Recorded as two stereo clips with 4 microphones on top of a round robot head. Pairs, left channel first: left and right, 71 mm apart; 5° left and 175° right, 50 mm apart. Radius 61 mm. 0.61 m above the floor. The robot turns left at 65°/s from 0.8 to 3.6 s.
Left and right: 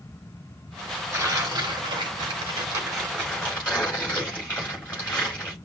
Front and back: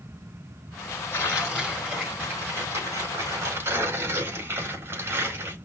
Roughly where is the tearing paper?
Ahead right.